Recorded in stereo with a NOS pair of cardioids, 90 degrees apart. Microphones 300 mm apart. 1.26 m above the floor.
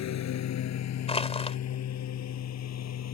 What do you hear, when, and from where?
0.0 s a lawn mower: 65° left
1.1 s crushing: 20° left